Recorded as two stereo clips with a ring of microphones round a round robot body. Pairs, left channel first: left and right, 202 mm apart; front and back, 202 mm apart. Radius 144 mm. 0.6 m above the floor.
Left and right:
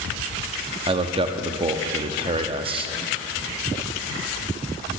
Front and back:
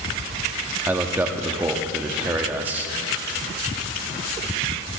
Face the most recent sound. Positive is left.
turn(degrees=-110)